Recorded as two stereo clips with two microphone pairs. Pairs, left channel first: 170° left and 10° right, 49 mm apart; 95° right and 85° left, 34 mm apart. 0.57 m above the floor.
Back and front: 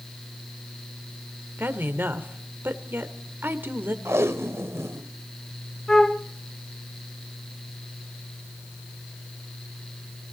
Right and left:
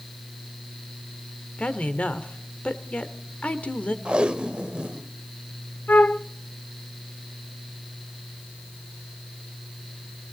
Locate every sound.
1.6 s a woman speaking: 50° right, 1.6 m
4.0 s tape being pulled: 25° left, 0.7 m
5.9 s a flute: 110° right, 0.6 m